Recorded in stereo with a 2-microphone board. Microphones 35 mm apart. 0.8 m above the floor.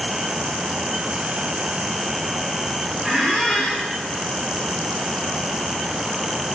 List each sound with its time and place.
3.0 s a squeak: 10° left (ahead or behind), 4.5 m